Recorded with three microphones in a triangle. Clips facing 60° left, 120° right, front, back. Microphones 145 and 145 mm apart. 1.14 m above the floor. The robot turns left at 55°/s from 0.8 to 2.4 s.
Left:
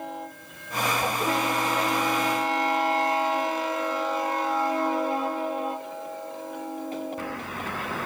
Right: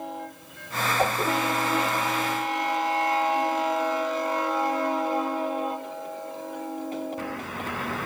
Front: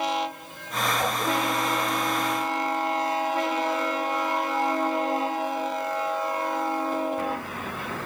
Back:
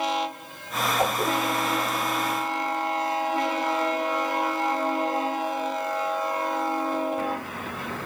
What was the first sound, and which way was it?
A whoosh, 125° right.